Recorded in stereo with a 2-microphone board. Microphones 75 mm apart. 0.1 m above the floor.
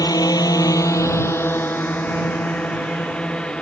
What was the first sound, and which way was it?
A drone, 55° left (ahead or behind).